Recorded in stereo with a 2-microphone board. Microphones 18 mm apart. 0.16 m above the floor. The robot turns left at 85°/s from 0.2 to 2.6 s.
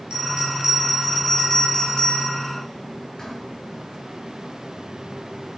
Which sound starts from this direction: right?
A bell, at 0.1 s.